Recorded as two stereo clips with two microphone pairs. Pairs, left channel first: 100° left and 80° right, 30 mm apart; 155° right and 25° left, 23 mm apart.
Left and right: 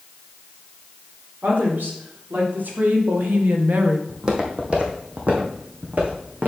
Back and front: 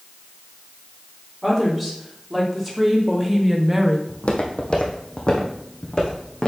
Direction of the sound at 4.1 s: 145° right.